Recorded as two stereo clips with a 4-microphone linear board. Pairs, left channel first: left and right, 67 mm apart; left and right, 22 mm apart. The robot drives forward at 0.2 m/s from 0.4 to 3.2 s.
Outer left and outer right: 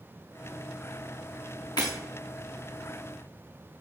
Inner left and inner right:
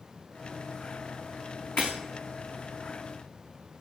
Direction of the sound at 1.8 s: 75° left (ahead or behind).